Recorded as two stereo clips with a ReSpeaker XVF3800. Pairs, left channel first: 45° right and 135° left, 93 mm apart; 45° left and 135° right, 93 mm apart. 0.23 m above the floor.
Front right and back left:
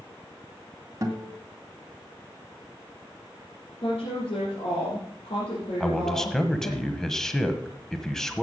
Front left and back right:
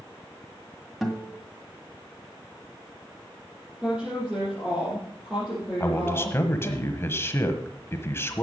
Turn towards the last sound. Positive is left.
turn(degrees=35)